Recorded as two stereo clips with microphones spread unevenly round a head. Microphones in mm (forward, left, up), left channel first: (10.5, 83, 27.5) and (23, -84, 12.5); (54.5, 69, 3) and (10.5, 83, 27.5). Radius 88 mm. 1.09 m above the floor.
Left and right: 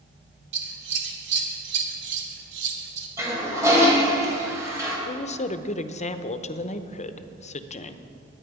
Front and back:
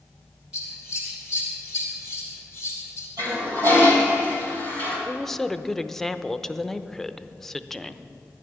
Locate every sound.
0.5 s scissors: 115° right, 2 m
3.2 s a toilet flushing: 160° right, 3 m
5.1 s a woman speaking: 45° left, 0.8 m